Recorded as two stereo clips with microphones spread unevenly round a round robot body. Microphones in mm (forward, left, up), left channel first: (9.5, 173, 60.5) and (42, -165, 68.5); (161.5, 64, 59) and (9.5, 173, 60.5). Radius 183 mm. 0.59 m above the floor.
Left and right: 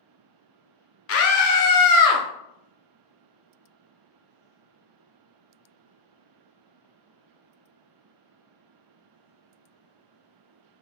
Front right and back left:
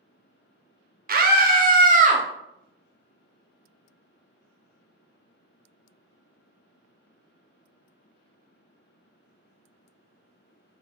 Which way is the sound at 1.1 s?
130° left.